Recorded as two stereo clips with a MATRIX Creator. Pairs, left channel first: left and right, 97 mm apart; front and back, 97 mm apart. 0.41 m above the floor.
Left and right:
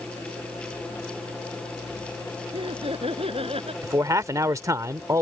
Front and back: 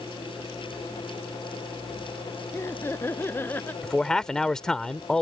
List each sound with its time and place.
2.5 s laughter: 65° right; by 3.7 s 70° right
3.8 s a man speaking: 80° right